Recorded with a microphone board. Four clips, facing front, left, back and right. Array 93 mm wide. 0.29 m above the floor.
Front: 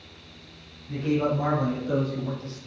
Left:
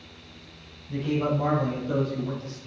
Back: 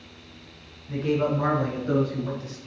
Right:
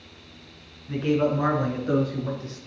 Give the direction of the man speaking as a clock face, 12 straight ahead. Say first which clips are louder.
Right 3 dB, back 1 dB; 3 o'clock.